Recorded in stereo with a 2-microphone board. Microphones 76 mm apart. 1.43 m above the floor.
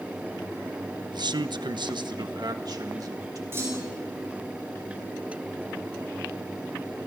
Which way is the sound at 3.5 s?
30° right (ahead or behind).